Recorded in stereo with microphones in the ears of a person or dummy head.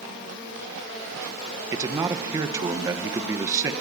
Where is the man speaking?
15° right (ahead or behind), 2 m.